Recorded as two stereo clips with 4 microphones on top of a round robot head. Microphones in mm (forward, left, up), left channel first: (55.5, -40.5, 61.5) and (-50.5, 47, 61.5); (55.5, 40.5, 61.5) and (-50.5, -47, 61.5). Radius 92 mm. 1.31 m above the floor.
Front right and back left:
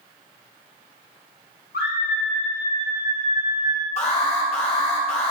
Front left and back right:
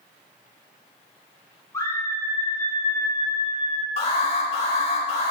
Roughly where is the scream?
Ahead right.